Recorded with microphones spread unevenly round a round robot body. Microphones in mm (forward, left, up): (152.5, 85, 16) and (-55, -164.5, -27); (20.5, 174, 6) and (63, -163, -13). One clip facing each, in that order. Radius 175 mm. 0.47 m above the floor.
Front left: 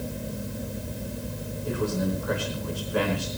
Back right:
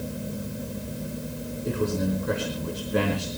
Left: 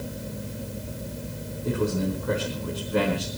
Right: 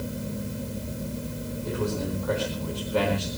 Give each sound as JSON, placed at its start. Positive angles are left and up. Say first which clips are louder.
{"t": 1.6, "sound": "a man speaking", "louder": "back right 1 dB, left 4 dB", "azimuth_deg": 165, "distance_m": 4.5}